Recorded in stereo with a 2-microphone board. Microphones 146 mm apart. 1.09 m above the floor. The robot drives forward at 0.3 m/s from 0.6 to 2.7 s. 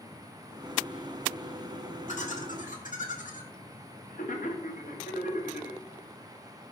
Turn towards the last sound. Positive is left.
turn(degrees=70)  # may be behind; listen again after turning